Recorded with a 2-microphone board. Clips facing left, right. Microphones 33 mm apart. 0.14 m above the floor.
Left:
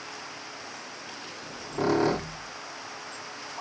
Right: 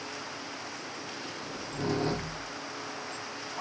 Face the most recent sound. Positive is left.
turn(degrees=80)